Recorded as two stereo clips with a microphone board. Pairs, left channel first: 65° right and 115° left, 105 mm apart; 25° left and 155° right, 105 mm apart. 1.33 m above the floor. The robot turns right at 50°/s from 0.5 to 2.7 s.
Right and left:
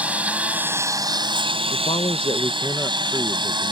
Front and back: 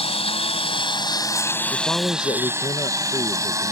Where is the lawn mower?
35° left; by 3.7 s 145° left.